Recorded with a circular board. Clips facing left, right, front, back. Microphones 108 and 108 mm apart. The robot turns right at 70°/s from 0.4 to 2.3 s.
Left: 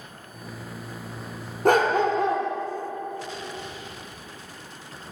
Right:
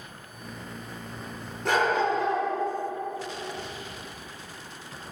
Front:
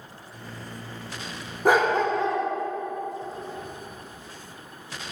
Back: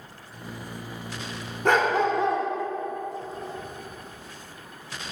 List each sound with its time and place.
1.6 s a dog barking: 75° left, 1.1 m; by 2.5 s 120° left, 1.1 m